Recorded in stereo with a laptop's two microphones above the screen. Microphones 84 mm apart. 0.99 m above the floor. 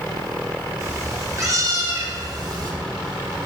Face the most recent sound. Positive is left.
turn(degrees=-55)  # may be behind; listen again after turning